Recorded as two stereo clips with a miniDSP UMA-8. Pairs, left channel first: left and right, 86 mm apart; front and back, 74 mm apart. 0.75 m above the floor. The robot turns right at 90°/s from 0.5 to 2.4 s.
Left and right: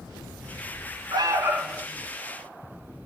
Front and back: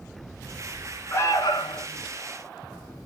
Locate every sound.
1.1 s an alarm: 55° right, 0.8 m; by 1.9 s 15° left, 0.8 m